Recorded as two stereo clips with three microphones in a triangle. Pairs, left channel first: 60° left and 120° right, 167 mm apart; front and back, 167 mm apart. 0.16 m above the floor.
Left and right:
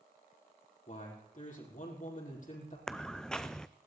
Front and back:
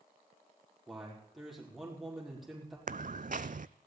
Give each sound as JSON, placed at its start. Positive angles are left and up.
{"t": 0.9, "sound": "a man speaking", "azimuth_deg": 90, "distance_m": 5.0}
{"t": 2.9, "sound": "footsteps", "azimuth_deg": 145, "distance_m": 0.5}